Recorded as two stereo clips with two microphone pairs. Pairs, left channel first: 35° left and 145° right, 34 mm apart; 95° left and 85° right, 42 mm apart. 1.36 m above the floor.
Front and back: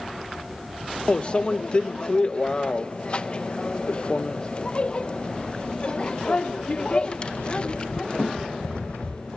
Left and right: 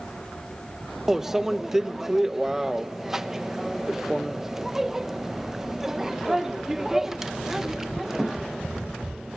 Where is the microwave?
10° right, 0.5 m.